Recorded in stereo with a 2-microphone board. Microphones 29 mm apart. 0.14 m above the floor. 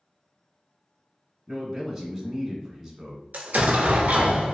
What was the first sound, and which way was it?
A man speaking, 10° right (ahead or behind).